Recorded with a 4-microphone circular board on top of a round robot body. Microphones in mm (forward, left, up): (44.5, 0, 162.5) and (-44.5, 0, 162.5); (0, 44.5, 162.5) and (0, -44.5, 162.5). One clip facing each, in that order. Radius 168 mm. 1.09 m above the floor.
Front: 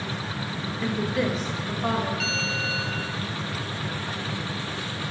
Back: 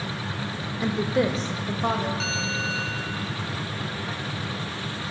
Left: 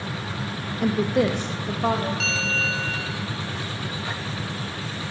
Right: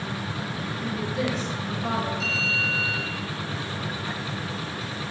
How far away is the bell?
About 0.8 m.